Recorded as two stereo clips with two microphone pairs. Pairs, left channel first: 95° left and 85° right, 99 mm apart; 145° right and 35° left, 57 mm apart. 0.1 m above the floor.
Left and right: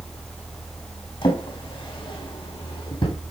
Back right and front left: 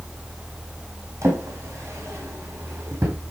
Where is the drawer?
70° left, 4 m.